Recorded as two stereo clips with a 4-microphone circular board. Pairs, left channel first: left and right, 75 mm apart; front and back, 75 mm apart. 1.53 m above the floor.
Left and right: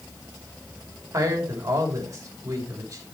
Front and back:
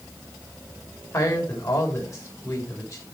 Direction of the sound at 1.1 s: 40° right.